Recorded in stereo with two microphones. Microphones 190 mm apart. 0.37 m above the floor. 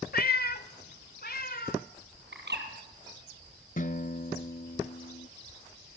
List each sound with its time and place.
0.1 s a cat meowing: 50° left (ahead or behind), 0.8 m; by 1.9 s 55° left (ahead or behind), 2.5 m
2.3 s a bird: 65° right (ahead or behind), 3.5 m
3.8 s a guitar: 45° left (ahead or behind), 1.1 m